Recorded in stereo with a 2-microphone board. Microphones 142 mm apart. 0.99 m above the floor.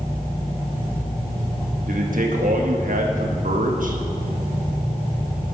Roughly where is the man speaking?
Right.